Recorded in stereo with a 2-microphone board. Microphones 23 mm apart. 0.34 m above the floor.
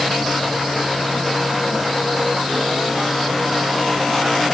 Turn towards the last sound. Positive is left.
No sound to turn to.